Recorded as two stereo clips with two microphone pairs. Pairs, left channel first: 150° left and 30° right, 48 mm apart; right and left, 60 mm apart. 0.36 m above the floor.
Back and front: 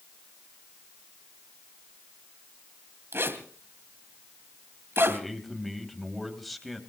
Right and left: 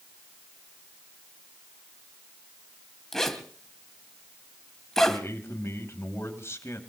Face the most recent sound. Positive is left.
turn(degrees=-120)